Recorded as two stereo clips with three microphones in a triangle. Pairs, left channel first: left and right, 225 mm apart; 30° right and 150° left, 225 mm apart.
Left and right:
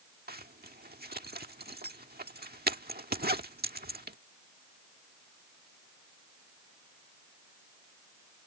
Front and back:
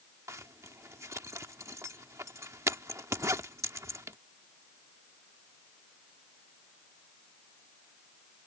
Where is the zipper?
135° right.